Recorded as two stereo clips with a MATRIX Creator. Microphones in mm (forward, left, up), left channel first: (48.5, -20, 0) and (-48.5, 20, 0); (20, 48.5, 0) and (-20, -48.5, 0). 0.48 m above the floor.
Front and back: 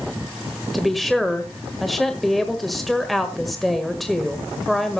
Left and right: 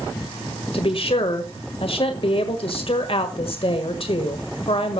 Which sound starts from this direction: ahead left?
A woman speaking, at 0.7 s.